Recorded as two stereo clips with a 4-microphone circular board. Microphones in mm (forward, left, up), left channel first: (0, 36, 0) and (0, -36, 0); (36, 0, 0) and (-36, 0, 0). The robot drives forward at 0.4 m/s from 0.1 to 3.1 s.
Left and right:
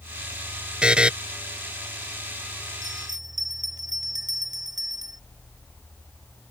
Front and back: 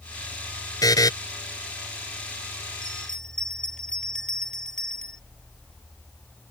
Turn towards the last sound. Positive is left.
turn(degrees=-80)